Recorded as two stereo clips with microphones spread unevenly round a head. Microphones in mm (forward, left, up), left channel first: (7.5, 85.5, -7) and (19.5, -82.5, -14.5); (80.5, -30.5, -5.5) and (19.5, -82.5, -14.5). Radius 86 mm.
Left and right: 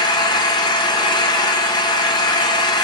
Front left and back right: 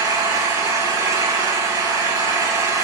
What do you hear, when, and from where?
0.0 s an engine running: 155° left, 0.9 m